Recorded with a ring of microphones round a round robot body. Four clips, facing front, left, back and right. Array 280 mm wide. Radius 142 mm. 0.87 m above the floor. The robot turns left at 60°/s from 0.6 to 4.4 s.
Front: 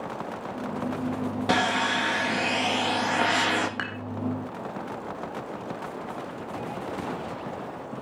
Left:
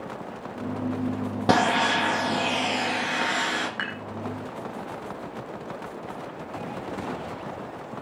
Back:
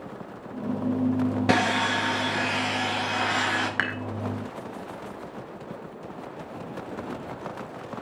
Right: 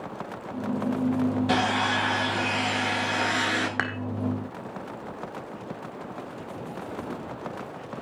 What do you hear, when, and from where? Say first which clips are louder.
1.5 s sawing: left 3 dB, front 2 dB; 115° left, 1.5 m; by 3.7 s 20° right, 1.5 m
3.8 s dishes clattering: right 3 dB, back 4 dB; 105° right, 1.8 m; by 4.0 s 115° right, 1.8 m